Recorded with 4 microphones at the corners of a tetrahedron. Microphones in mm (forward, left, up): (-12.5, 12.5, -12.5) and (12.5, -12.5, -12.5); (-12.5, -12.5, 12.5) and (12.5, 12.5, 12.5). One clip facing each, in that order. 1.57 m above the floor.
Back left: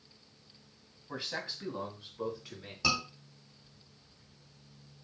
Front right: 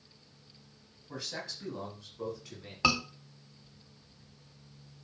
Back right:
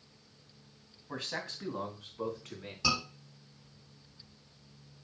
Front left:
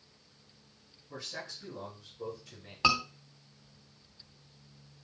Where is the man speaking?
165° right, 2.5 m; by 2.7 s 150° right, 4 m.